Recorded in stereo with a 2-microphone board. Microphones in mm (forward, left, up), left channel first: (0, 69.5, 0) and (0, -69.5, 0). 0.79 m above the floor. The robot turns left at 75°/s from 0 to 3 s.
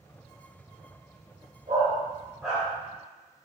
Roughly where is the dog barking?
Right.